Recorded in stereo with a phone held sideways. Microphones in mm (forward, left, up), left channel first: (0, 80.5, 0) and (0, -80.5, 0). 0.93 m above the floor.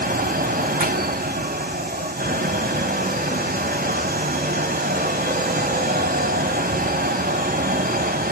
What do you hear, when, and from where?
0.0 s a fan: 65° right (ahead or behind), 0.9 m